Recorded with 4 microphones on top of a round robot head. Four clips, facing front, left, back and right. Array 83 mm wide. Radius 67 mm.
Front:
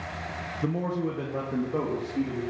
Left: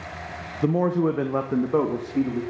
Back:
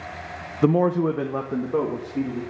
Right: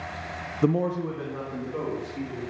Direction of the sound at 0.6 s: 165° right.